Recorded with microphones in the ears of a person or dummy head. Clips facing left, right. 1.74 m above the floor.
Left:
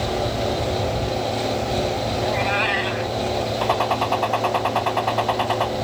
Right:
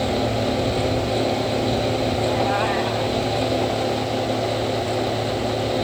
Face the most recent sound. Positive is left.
turn(degrees=75)  # may be behind; listen again after turning